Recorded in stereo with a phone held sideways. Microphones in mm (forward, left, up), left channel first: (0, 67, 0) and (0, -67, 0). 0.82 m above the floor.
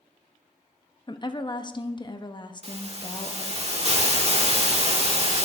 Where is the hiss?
50° right (ahead or behind), 2 m.